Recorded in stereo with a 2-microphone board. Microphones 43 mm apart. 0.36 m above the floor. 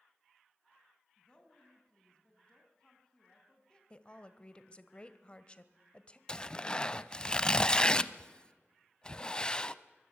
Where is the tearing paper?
20° left (ahead or behind), 0.6 m.